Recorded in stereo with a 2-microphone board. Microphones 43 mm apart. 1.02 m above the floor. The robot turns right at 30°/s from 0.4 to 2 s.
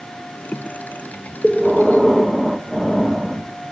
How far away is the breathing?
About 0.8 m.